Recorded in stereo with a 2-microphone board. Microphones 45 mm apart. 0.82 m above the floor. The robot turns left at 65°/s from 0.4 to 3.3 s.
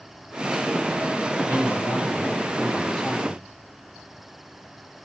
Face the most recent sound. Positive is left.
turn(degrees=-5)